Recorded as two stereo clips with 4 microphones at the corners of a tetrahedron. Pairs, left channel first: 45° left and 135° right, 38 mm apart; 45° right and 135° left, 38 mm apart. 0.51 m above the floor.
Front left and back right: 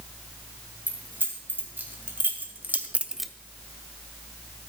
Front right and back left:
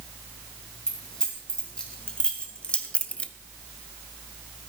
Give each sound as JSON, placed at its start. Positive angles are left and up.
{"t": 0.9, "sound": "keys jangling", "azimuth_deg": -110, "distance_m": 3.5}